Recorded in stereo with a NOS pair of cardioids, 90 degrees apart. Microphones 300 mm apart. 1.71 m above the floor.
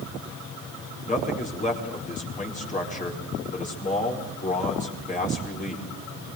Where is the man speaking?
25° left, 4.5 m.